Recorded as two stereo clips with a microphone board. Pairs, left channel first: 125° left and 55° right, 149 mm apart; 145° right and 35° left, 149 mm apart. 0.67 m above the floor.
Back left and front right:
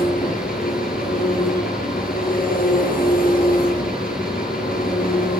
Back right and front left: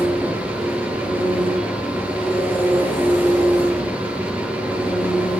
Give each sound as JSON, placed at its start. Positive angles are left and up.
{"t": 0.0, "sound": "an engine running", "azimuth_deg": 110, "distance_m": 8.0}